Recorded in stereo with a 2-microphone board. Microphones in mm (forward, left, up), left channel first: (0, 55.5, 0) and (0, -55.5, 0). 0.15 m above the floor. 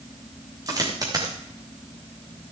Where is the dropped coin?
30° right (ahead or behind), 4 m.